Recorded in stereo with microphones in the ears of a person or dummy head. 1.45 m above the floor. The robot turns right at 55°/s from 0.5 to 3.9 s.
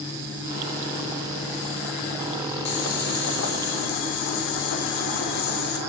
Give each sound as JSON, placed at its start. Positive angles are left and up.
{"t": 2.6, "sound": "boiling", "azimuth_deg": 40, "distance_m": 4.5}